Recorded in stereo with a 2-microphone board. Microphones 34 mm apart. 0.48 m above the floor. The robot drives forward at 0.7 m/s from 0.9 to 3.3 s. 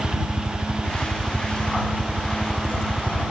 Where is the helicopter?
Centre (ahead or behind); by 3.3 s 15° right (ahead or behind).